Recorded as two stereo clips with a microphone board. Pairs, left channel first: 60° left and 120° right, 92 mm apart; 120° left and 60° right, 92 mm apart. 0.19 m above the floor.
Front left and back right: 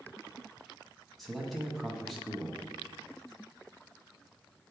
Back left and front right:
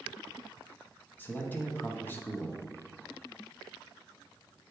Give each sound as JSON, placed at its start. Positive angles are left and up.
{"t": 1.2, "sound": "a man speaking", "azimuth_deg": 145, "distance_m": 1.1}